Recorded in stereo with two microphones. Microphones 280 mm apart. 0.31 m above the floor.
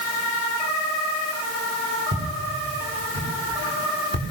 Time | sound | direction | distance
2.1 | footsteps | 45° right (ahead or behind) | 9 m